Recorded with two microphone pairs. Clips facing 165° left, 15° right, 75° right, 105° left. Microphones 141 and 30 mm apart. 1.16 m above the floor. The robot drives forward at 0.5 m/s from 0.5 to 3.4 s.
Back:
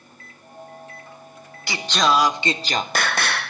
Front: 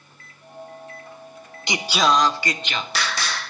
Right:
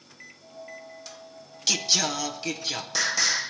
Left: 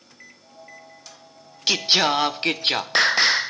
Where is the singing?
55° left, 0.5 m; by 3.5 s 145° left, 0.8 m.